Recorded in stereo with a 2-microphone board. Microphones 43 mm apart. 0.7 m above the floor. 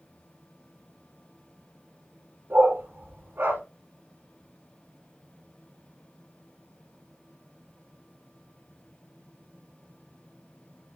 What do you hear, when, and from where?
2.5 s a dog barking: 60° right (ahead or behind), 3 m